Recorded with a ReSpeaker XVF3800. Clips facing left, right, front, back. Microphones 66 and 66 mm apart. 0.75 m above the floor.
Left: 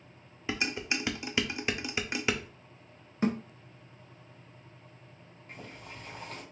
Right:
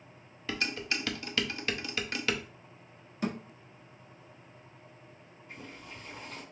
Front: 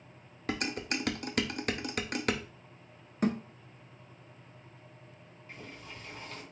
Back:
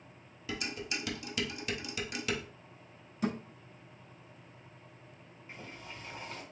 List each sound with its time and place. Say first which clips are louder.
0.5 s dishes clattering: left 1 dB, front 4 dB; 20° left, 0.6 m
3.2 s a thud: left 5 dB, front 4 dB; 35° left, 1.2 m
5.5 s boiling: even, even; 115° left, 1.7 m